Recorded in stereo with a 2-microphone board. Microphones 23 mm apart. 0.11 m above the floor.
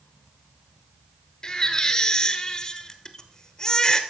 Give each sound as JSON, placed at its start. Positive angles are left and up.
{"t": 1.4, "sound": "a baby crying", "side_deg": 25, "distance_m": 1.0}